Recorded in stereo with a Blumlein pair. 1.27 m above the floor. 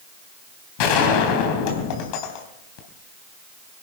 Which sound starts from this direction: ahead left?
A gunshot, at 0.8 s.